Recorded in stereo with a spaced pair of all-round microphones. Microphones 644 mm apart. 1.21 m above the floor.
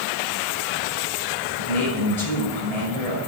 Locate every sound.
1.6 s a man speaking: 70° left (ahead or behind), 7 m